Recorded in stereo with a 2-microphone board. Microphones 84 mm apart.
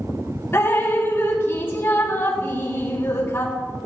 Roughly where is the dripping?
Left.